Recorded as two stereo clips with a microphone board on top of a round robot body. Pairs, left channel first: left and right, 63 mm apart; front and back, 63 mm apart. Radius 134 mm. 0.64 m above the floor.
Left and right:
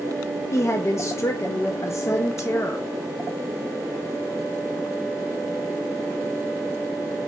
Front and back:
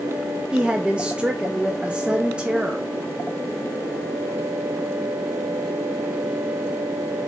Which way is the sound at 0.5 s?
110° left.